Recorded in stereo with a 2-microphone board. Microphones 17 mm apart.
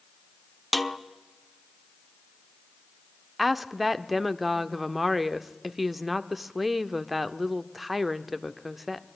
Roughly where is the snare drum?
Centre.